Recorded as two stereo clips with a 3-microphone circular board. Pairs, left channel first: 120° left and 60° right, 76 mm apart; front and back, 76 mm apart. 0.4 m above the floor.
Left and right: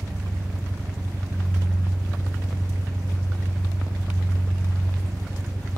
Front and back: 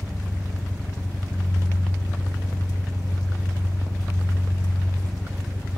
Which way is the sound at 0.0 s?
115° right.